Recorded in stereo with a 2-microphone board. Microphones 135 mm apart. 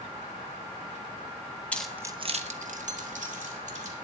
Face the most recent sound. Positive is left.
turn(degrees=-60)  # may be behind; listen again after turning